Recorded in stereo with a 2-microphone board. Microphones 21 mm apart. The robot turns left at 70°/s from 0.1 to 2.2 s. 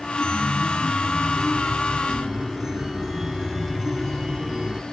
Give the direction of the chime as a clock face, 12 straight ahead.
8 o'clock.